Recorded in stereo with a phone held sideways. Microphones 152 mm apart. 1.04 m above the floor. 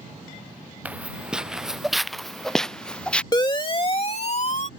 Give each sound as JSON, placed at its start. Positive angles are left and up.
{"t": 0.8, "sound": "footsteps", "side_deg": -10}
{"t": 3.3, "sound": "a siren", "side_deg": 30}